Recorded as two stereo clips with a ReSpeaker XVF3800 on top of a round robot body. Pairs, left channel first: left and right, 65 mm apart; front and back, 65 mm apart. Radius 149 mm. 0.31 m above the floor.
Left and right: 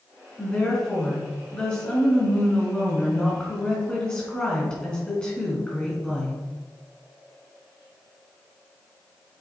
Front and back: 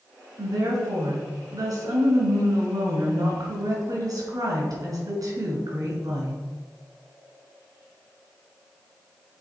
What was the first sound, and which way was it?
A woman speaking, 165° left.